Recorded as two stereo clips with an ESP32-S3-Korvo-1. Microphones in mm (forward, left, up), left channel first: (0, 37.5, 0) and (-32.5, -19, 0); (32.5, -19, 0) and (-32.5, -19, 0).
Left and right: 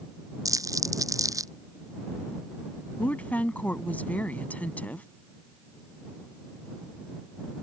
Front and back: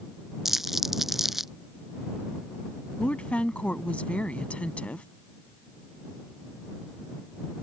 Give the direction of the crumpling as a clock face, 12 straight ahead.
3 o'clock.